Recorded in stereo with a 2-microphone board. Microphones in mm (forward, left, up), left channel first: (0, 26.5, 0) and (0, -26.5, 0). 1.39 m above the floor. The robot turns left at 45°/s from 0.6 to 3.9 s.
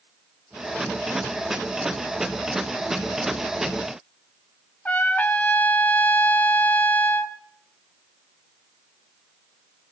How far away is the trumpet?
About 1.0 m.